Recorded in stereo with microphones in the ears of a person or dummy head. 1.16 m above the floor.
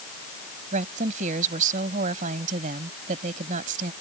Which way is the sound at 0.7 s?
45° right (ahead or behind).